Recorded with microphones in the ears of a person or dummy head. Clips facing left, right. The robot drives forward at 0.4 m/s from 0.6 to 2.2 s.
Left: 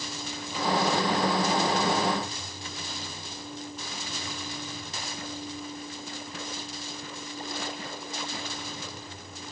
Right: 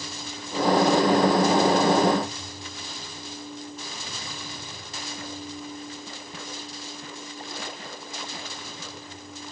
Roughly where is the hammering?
I don't hear hammering.